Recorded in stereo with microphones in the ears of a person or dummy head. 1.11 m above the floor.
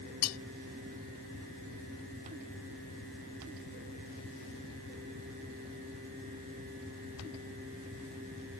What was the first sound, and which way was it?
Cutlery clinking, 80° left.